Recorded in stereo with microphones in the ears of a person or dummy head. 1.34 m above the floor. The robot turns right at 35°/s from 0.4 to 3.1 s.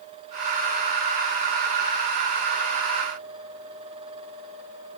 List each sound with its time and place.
Only background noise.